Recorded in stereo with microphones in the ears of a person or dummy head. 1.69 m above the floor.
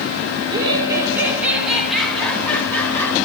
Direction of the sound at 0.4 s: 25° right (ahead or behind).